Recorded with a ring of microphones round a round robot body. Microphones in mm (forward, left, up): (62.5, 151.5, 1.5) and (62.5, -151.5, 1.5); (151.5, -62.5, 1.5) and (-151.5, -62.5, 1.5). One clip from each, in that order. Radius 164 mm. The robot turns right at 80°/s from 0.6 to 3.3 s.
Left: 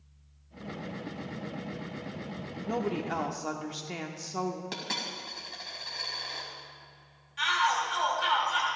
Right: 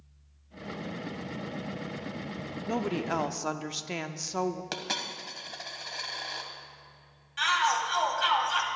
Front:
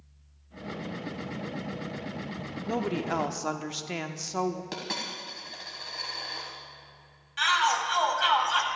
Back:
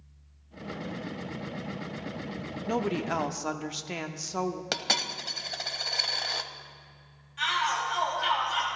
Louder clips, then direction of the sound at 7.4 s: Right 1 dB, front 3 dB; 35° right.